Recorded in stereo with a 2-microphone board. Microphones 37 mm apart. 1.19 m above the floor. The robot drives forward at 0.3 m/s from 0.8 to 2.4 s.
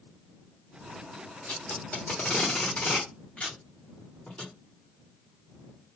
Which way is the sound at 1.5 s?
45° left (ahead or behind).